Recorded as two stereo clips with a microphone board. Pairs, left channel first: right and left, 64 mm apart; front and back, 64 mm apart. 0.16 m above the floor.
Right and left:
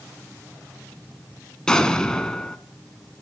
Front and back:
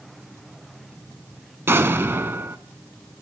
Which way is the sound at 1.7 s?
160° right.